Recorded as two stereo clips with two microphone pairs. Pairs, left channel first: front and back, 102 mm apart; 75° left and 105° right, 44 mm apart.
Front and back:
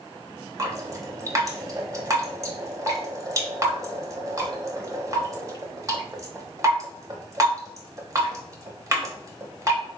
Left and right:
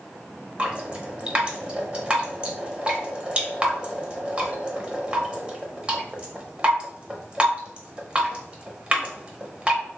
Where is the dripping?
155° right, 0.8 m.